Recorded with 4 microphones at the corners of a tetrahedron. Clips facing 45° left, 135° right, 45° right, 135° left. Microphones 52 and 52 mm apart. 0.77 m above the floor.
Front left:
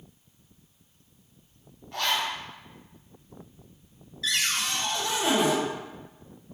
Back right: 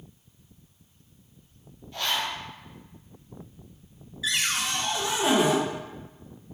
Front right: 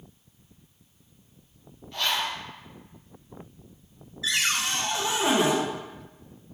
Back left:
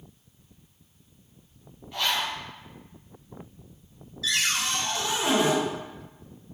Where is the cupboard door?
75° right, 0.7 m.